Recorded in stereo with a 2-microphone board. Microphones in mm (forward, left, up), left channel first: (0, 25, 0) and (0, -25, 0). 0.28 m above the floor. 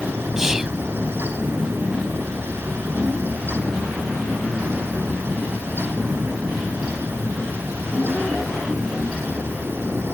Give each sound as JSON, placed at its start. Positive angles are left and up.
{"t": 0.4, "sound": "whispering", "side_deg": -10}